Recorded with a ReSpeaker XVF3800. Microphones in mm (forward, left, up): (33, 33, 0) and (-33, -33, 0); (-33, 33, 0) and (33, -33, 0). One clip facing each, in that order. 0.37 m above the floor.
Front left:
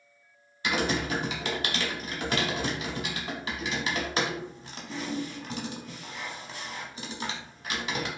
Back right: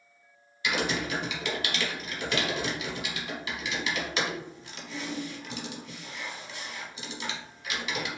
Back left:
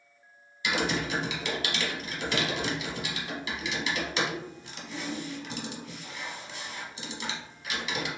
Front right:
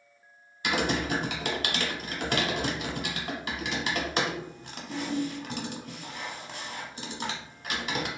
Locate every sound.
0.6 s typing on a keyboard: 5° right, 0.6 m